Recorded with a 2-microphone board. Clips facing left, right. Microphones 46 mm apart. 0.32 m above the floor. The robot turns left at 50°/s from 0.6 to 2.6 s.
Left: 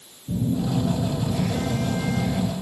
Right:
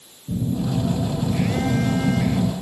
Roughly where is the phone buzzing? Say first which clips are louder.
Even; ahead.